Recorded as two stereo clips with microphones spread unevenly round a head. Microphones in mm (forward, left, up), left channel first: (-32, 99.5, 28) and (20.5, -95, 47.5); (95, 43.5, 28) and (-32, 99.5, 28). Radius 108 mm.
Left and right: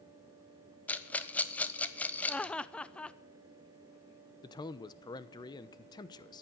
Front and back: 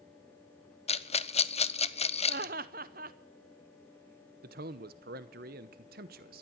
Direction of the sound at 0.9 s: 20° left.